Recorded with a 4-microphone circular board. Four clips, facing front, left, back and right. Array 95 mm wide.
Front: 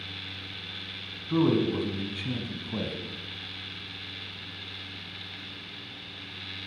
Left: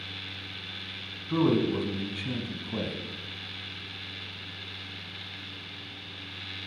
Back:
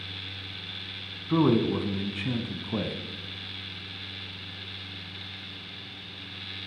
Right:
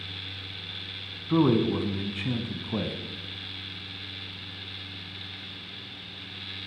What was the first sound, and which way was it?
A man speaking, 140° right.